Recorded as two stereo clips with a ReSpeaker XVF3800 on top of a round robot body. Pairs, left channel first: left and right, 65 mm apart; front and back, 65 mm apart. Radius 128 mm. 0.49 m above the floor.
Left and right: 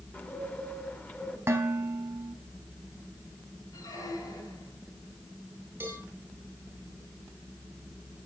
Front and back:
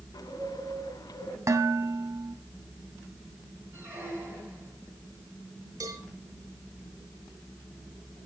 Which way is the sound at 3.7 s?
125° left.